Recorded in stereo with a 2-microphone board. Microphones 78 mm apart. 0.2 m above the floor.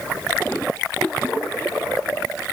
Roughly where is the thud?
I don't hear a thud.